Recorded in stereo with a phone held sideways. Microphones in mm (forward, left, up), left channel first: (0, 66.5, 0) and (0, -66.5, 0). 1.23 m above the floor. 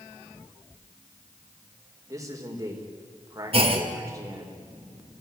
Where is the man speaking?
25° right (ahead or behind), 4.5 m.